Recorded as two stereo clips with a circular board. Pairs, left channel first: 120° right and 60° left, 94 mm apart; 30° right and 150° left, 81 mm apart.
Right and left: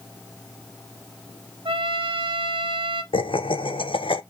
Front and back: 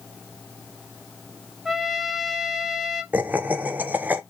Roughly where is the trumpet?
Ahead left.